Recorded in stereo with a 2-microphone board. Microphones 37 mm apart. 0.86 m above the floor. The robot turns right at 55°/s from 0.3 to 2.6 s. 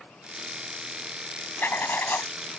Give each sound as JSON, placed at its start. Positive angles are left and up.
{"t": 1.6, "sound": "writing", "azimuth_deg": 80}